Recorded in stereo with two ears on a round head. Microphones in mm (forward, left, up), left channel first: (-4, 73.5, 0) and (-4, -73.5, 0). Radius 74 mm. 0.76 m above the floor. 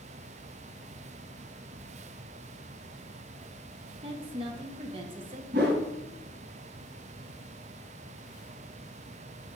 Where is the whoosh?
75° right (ahead or behind), 1.4 m.